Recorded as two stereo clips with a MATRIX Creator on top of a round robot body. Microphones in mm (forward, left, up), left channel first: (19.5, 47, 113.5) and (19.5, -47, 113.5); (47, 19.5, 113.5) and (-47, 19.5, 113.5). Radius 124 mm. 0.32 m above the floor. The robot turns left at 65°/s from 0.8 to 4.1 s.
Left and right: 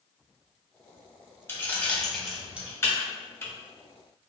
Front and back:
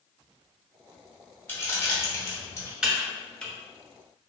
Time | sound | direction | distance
1.5 | keys jangling | 50° left | 0.9 m
2.8 | typing on a keyboard | 110° left | 0.9 m